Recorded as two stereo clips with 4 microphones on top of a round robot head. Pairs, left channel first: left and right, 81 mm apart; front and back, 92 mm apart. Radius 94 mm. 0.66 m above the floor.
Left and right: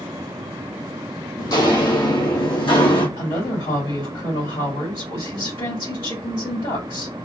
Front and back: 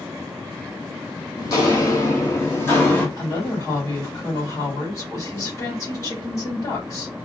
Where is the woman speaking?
60° left, 3 m.